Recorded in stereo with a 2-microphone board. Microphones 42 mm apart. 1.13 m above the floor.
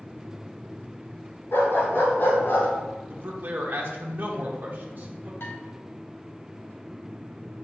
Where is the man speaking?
50° right (ahead or behind), 1.2 m.